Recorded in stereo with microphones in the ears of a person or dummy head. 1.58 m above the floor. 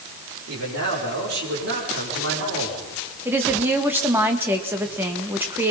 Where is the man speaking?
75° right (ahead or behind), 5.5 m.